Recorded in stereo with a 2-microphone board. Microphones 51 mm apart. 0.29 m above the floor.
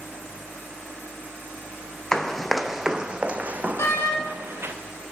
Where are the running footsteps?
15° left (ahead or behind), 0.9 m; by 4.7 s 55° right (ahead or behind), 1.5 m.